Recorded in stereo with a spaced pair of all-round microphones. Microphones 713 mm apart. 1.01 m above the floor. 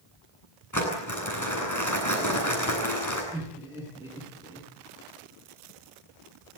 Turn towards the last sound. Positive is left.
turn(degrees=-5)  # may be behind; listen again after turning